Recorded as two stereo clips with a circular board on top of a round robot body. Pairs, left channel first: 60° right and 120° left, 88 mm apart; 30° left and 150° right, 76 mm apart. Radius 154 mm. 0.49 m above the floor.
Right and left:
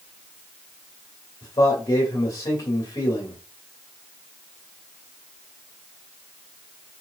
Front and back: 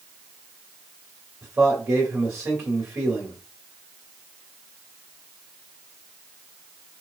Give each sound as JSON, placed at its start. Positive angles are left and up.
{"t": 1.4, "sound": "a man speaking", "azimuth_deg": -105, "distance_m": 1.9}